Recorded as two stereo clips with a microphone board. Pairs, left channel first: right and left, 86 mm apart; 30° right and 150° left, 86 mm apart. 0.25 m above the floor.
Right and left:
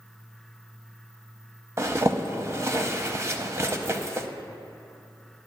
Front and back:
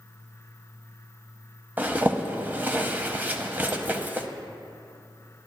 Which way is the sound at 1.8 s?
100° left.